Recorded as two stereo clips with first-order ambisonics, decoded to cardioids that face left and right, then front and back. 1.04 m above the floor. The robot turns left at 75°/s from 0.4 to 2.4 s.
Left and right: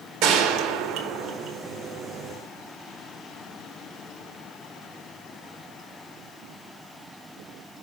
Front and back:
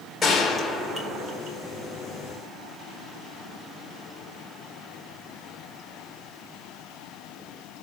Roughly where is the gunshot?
Right.